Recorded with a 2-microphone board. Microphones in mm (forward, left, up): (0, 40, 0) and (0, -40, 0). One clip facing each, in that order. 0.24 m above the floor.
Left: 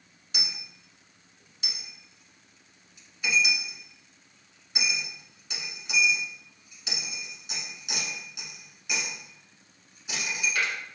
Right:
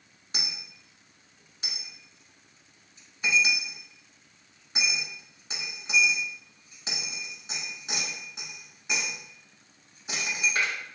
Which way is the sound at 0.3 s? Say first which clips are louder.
Even; 40° right (ahead or behind).